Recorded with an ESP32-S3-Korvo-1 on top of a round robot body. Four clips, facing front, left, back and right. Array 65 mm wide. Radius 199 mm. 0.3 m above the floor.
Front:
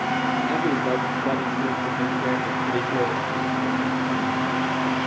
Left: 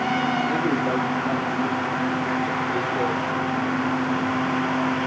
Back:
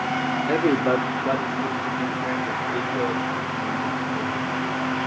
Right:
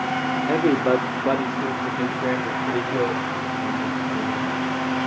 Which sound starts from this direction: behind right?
A man speaking, at 0.5 s.